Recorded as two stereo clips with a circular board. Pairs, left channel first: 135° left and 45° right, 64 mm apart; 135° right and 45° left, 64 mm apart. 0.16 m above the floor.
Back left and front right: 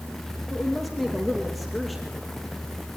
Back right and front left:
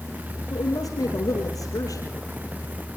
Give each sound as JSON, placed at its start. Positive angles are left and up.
{"t": 0.5, "sound": "a woman speaking", "azimuth_deg": -135, "distance_m": 4.5}